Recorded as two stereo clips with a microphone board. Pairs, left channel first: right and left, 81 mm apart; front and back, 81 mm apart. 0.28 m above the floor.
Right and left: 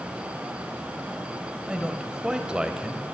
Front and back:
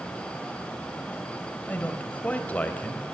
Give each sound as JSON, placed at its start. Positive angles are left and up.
{"t": 1.7, "sound": "a man speaking", "azimuth_deg": 30, "distance_m": 1.0}